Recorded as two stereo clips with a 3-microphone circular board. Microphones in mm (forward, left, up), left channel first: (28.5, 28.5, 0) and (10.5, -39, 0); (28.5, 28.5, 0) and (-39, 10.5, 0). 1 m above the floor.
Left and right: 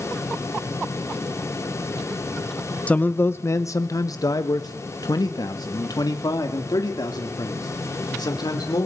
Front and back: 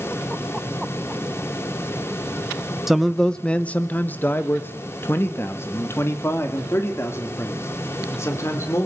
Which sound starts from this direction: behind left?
A man speaking, at 2.9 s.